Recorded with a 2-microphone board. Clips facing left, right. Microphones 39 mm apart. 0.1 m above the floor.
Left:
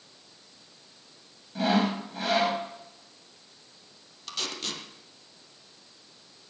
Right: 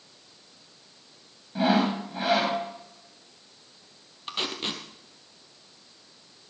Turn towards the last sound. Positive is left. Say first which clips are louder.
# right 3 dB
turn(degrees=-25)  # may be behind; listen again after turning